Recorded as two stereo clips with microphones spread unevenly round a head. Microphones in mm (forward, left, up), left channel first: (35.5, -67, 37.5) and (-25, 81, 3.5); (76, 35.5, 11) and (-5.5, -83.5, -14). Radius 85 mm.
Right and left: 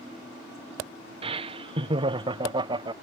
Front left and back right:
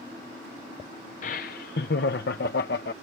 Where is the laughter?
90° left; by 2.9 s 55° left.